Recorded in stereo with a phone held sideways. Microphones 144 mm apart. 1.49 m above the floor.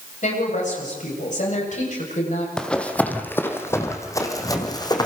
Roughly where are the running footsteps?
Centre.